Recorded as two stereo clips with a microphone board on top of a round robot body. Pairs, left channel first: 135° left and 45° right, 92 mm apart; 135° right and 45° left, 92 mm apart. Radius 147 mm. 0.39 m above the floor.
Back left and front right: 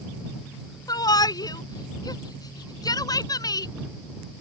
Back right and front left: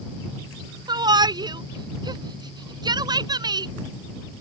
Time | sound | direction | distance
0.9 | a shout | 85° left | ?